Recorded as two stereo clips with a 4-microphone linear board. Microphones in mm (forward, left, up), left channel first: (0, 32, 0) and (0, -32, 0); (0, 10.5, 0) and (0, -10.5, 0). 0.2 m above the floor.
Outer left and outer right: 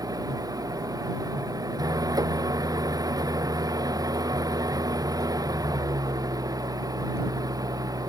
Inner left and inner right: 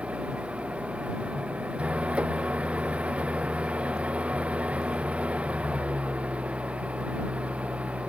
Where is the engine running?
75° right (ahead or behind).